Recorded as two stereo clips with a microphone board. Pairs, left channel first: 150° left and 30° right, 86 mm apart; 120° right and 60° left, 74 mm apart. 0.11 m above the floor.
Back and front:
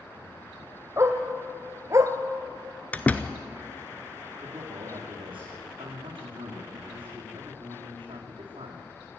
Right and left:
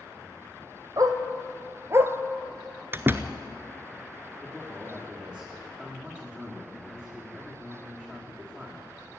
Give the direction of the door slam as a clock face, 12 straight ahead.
9 o'clock.